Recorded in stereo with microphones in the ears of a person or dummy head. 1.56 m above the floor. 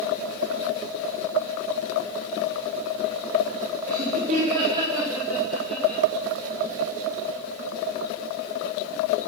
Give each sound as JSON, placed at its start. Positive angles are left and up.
{"t": 3.9, "sound": "laughter", "side_deg": -50, "distance_m": 1.9}